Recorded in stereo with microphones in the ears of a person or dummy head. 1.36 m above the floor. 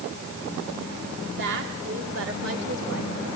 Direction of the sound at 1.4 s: 60° right (ahead or behind).